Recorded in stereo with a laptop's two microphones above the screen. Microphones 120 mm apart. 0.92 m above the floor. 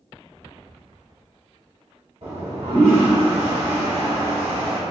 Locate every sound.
2.2 s a toilet flushing: 65° right (ahead or behind), 1.7 m